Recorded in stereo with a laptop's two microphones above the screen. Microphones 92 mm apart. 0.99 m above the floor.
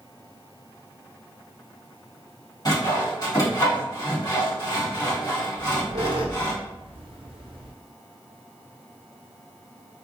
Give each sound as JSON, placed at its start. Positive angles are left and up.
{"t": 2.6, "sound": "sawing", "side_deg": 45, "distance_m": 1.5}
{"t": 5.5, "sound": "a squeak", "side_deg": -75, "distance_m": 0.5}